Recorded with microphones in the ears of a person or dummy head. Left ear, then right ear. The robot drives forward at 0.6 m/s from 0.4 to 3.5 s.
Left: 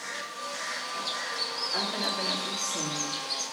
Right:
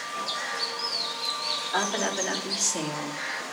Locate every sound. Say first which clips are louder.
1.7 s a woman speaking: right 2 dB; 15° right (ahead or behind), 3 m; by 3.4 s 20° right (ahead or behind), 2 m